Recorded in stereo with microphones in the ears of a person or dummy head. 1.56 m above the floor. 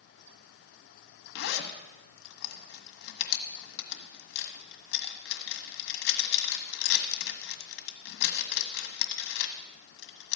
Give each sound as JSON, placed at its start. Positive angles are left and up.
{"t": 1.4, "sound": "a zipper", "side_deg": 65, "distance_m": 1.5}